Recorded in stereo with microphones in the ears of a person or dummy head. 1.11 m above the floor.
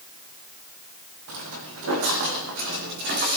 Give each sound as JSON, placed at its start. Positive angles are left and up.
{"t": 1.3, "sound": "footsteps", "side_deg": -70, "distance_m": 3.5}